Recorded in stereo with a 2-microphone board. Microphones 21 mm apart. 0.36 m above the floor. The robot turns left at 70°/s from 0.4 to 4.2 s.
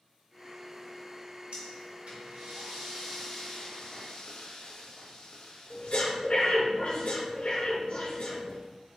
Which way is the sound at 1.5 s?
60° right (ahead or behind).